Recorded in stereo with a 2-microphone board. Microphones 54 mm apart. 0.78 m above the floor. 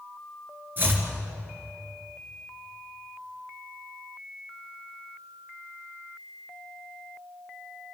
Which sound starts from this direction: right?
Chopping, at 0.8 s.